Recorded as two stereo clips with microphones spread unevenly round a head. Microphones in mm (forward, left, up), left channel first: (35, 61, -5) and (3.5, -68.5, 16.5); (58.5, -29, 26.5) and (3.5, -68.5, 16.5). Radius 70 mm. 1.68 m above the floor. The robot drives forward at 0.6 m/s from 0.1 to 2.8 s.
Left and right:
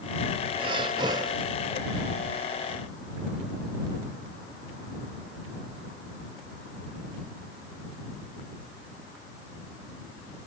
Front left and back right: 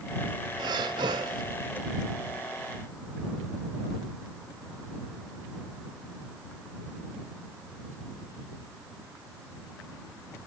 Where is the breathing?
150° right, 0.6 m; by 1.4 s 165° right, 1.1 m.